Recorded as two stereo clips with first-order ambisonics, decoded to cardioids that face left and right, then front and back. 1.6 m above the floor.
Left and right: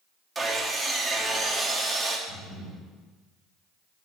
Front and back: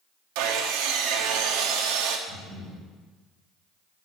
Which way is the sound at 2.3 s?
65° left.